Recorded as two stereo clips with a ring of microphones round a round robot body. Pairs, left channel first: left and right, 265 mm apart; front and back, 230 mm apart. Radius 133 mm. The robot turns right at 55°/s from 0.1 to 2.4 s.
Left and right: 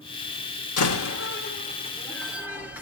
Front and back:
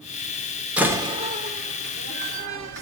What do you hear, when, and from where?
0.8 s a door slam: 95° left, 1.2 m; by 2.8 s 175° right, 1.2 m